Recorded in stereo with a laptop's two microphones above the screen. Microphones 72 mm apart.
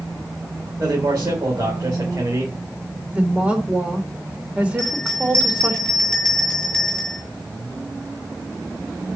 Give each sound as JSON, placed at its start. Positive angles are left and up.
{"t": 0.8, "sound": "a man speaking", "side_deg": -45, "distance_m": 2.5}
{"t": 3.1, "sound": "a woman speaking", "side_deg": -15, "distance_m": 3.0}
{"t": 4.8, "sound": "a bell", "side_deg": 10, "distance_m": 2.5}